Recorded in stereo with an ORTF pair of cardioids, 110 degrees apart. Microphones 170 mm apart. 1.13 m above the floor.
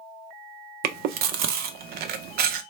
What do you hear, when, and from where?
0.8 s chewing: 65° right, 0.5 m